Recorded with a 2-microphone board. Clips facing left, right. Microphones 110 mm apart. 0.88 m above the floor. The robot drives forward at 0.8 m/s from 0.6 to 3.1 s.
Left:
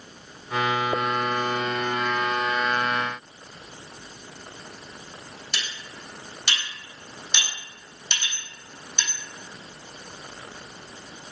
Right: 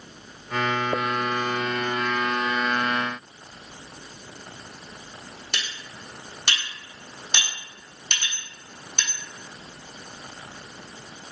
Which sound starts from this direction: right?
Cutlery clinking, at 5.5 s.